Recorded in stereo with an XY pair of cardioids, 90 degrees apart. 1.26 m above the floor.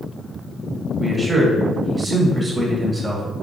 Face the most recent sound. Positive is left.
turn(degrees=-20)